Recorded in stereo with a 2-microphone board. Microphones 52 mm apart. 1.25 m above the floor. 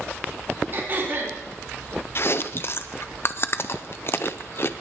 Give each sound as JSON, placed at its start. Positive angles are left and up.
{"t": 0.7, "sound": "throat clearing", "side_deg": -45, "distance_m": 3.5}
{"t": 2.1, "sound": "chewing", "side_deg": 45, "distance_m": 0.6}